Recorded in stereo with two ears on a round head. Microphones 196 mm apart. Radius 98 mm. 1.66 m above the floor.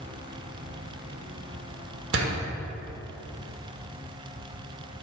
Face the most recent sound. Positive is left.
turn(degrees=-55)  # may be behind; listen again after turning